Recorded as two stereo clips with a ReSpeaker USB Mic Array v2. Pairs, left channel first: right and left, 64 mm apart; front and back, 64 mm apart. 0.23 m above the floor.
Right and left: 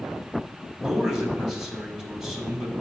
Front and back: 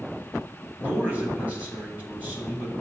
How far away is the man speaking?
About 1.4 m.